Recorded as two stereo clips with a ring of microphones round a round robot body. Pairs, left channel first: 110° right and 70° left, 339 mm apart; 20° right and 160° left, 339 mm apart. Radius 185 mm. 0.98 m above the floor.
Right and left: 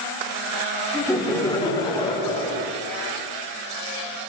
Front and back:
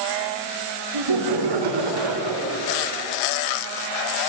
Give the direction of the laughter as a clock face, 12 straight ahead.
6 o'clock.